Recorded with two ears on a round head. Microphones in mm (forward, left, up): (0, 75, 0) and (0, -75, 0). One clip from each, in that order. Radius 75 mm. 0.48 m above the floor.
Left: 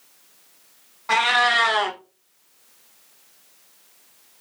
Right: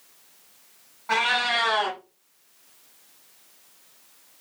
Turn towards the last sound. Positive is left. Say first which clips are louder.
# left 5 dB
turn(degrees=60)  # may be behind; listen again after turning